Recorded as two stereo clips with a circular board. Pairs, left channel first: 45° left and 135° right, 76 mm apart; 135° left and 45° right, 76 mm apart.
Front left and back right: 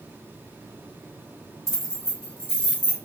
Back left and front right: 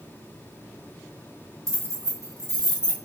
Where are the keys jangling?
Straight ahead, 1.9 m; by 3.0 s 25° right, 1.8 m.